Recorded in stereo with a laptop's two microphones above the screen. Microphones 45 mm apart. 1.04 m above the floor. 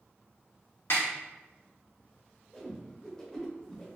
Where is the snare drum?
60° left (ahead or behind), 1.4 m.